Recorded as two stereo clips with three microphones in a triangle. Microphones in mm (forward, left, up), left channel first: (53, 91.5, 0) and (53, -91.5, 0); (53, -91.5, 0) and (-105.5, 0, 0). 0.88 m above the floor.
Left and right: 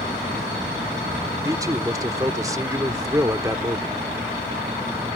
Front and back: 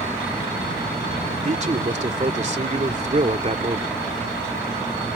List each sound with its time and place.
1.4 s a man speaking: 160° right